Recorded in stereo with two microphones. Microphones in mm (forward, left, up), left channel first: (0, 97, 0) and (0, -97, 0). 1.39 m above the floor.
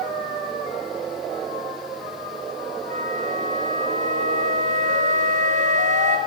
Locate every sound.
2.9 s a flute: 40° right (ahead or behind), 4.5 m